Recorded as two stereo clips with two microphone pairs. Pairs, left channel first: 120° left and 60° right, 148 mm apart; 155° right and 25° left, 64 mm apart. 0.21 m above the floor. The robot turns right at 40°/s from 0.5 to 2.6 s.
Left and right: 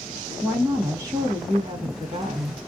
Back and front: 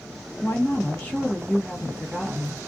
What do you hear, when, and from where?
0.4 s a woman speaking: 135° right, 1.3 m; by 2.6 s 50° right, 1.3 m